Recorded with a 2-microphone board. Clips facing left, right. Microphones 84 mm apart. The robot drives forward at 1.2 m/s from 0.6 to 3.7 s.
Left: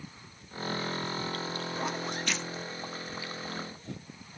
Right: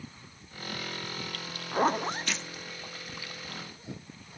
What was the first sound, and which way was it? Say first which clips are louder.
A zipper: right 11 dB; 50° right (ahead or behind).